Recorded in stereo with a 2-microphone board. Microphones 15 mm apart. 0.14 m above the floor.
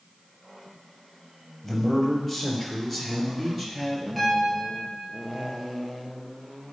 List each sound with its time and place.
1.6 s a man speaking: 5° left (ahead or behind), 3.5 m; by 4.1 s 20° right (ahead or behind), 3 m
4.2 s a piano: 10° left (ahead or behind), 3.5 m